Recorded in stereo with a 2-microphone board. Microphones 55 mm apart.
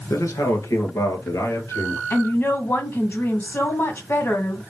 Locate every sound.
0.1 s a man speaking: 70° left (ahead or behind), 2.5 m; by 2.0 s 75° left (ahead or behind), 3.5 m
2.1 s a woman speaking: 40° left (ahead or behind), 1.9 m